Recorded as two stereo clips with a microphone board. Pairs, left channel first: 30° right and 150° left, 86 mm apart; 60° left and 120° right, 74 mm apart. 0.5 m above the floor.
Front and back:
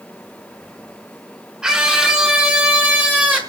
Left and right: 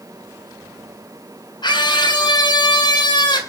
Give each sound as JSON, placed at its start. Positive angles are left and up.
{"t": 1.6, "sound": "a scream", "azimuth_deg": 70, "distance_m": 6.5}